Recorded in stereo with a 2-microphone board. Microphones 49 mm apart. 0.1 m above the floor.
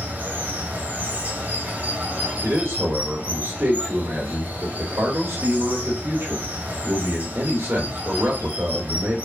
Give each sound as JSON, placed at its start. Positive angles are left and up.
{"t": 0.0, "sound": "running water", "side_deg": -35, "distance_m": 0.8}
{"t": 2.4, "sound": "a man speaking", "side_deg": -55, "distance_m": 2.5}